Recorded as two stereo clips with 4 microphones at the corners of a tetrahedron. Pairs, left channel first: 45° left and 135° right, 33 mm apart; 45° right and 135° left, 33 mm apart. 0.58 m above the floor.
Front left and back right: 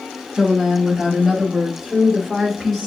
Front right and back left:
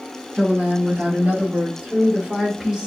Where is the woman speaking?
140° left, 2.5 m; by 2.9 s 105° left, 1.2 m.